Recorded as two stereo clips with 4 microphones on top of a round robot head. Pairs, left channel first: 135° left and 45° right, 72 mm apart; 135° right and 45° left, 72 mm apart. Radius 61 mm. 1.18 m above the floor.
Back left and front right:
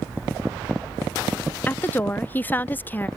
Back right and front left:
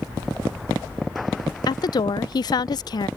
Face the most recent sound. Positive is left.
turn(degrees=-160)